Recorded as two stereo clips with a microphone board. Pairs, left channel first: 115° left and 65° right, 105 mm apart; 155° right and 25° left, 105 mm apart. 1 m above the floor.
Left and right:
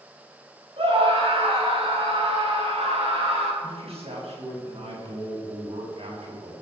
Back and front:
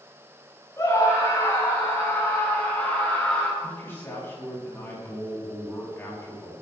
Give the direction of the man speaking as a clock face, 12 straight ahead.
3 o'clock.